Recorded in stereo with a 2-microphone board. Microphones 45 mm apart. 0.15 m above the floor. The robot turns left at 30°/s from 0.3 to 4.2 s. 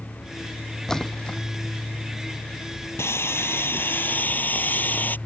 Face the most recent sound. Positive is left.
turn(degrees=45)